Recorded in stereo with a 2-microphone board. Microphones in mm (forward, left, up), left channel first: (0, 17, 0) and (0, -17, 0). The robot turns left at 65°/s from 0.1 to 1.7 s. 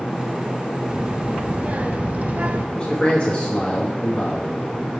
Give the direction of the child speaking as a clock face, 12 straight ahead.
1 o'clock.